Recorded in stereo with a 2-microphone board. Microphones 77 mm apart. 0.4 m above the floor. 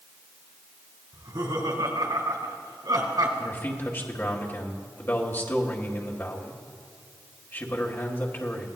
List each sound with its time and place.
1.1 s laughter: 70° right (ahead or behind), 4 m; by 3.3 s 60° right (ahead or behind), 4 m
3.4 s a man speaking: 30° left (ahead or behind), 1.7 m